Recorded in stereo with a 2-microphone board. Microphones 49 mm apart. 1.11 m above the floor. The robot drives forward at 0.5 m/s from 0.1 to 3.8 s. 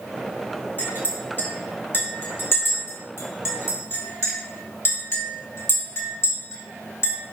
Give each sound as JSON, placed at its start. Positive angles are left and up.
{"t": 0.8, "sound": "a clink", "side_deg": 40, "distance_m": 3.0}